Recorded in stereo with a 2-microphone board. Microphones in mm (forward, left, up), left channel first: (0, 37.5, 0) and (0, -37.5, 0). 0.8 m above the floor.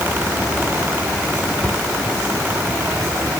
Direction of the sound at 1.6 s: 25° left (ahead or behind).